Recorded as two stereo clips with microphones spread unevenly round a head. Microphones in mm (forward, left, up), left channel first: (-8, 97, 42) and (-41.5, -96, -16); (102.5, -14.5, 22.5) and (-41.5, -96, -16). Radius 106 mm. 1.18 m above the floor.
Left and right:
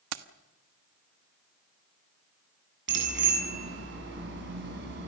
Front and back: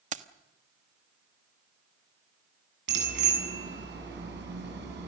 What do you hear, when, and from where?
0.1 s keys jangling: 100° right, 1.2 m
2.9 s a bicycle bell: 135° right, 7.5 m